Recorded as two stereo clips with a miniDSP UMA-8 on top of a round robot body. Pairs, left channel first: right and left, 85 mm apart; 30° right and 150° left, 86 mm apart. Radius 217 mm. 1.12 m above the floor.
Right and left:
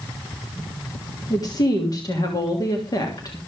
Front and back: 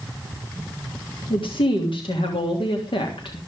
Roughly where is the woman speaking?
Ahead right.